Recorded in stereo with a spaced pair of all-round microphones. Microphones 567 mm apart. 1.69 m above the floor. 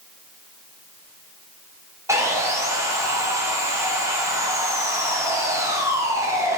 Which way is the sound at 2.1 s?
5° right (ahead or behind).